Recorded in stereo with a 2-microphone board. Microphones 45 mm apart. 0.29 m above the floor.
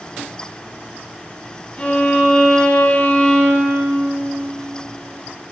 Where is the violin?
30° left (ahead or behind), 2.5 m.